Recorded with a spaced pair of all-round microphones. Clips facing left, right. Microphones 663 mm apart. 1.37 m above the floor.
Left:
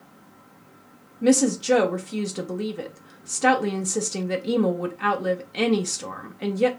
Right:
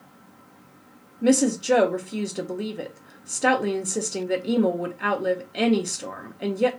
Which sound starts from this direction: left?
A woman speaking, at 1.2 s.